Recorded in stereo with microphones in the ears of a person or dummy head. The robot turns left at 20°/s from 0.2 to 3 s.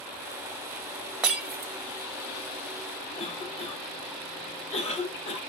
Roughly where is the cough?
Left.